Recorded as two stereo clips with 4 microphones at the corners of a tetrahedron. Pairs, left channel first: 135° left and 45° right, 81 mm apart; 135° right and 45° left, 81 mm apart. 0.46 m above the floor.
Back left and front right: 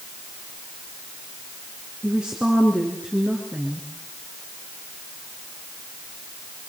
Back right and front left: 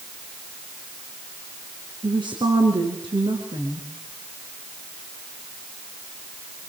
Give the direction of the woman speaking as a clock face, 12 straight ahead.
11 o'clock.